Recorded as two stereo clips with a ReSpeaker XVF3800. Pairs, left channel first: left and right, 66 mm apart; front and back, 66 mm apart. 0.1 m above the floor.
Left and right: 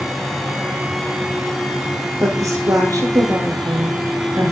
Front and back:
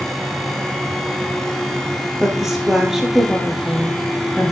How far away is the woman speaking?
About 2.5 m.